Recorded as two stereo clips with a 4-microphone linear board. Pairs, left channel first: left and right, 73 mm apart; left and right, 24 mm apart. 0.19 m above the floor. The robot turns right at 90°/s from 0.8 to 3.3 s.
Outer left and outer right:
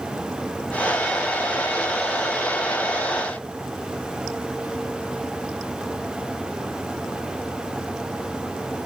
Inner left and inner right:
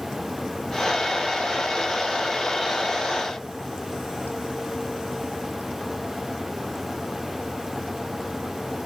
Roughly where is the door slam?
I don't hear a door slam.